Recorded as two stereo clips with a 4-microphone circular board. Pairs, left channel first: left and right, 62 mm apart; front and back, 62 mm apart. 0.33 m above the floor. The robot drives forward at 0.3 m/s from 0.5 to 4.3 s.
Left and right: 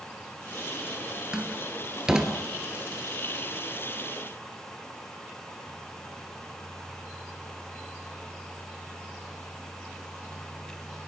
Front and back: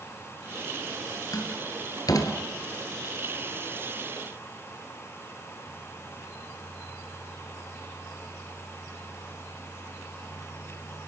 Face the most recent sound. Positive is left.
turn(degrees=-10)